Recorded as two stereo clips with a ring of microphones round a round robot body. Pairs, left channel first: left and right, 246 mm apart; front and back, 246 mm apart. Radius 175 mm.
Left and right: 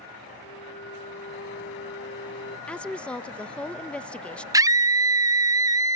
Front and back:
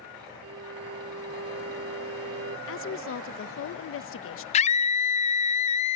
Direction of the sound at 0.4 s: 150° left.